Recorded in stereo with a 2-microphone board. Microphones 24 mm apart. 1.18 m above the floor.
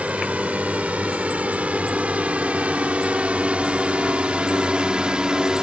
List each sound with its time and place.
0.0 s a drone: 80° right; by 5.6 s 35° right (ahead or behind)